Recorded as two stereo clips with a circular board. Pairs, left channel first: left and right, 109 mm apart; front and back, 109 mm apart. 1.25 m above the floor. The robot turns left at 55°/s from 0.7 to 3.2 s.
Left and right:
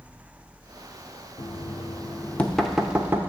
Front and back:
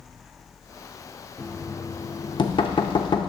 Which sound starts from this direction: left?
Knocking, at 1.4 s.